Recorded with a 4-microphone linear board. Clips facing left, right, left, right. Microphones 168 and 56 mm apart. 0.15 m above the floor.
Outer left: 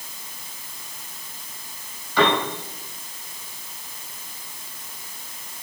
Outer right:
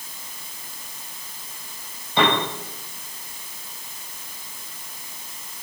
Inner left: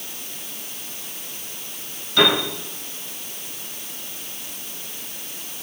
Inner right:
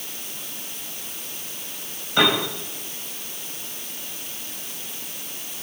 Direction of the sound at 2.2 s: 20° right (ahead or behind).